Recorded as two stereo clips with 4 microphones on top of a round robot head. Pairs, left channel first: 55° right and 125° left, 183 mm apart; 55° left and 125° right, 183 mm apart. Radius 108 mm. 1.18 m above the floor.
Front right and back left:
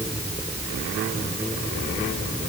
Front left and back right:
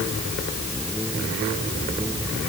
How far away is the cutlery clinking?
I don't hear cutlery clinking.